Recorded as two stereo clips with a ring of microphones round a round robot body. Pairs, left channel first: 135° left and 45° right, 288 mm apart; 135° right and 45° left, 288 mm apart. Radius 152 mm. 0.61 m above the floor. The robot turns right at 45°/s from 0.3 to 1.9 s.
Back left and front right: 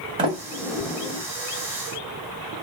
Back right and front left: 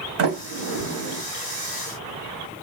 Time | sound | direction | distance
0.2 | a sliding door | 20° left | 1.7 m